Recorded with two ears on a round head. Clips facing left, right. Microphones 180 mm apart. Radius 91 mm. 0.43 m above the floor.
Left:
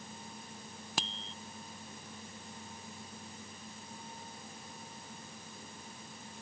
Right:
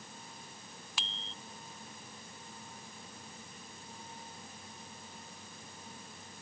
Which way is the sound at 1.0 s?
35° left (ahead or behind).